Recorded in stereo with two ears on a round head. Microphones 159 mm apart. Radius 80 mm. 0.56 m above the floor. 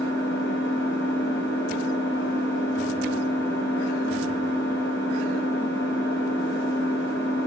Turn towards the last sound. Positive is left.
turn(degrees=65)  # may be behind; listen again after turning